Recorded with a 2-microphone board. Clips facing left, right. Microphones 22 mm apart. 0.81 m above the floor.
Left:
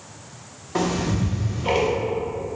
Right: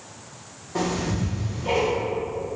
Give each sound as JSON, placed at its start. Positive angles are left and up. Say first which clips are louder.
{"t": 0.8, "sound": "ticking", "louder": "left 2 dB", "side_deg": 45, "distance_m": 0.6}